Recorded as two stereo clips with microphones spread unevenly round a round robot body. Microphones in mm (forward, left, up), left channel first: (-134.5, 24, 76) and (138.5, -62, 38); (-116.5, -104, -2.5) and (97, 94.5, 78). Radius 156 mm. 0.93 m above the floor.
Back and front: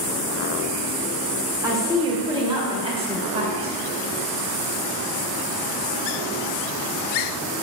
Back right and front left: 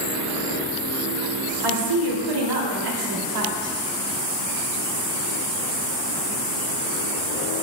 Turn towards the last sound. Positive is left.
turn(degrees=55)